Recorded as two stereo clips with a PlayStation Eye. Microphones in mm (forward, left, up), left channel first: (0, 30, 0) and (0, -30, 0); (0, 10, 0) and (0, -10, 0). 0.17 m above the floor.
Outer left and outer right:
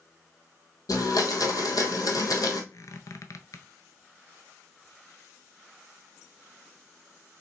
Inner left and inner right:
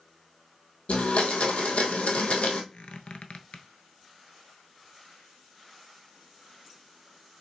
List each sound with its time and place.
0.9 s a blender: 80° left, 1.0 m
2.7 s a squeak: 60° left (ahead or behind), 0.6 m